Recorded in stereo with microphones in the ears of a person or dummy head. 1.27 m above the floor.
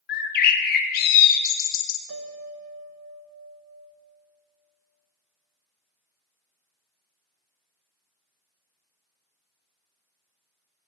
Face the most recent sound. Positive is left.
turn(degrees=-75)  # may be behind; listen again after turning